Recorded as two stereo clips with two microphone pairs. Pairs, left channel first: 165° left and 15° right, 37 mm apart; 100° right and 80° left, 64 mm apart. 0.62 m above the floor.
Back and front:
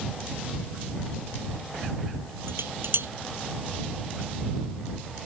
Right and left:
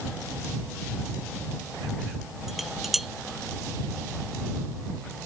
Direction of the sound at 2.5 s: 10° right.